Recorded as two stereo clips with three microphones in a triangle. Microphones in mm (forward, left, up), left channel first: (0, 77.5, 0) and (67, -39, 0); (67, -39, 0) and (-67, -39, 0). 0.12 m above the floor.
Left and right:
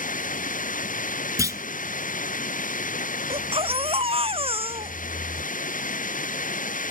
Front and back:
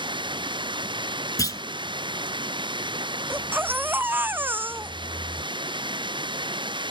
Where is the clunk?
25° right.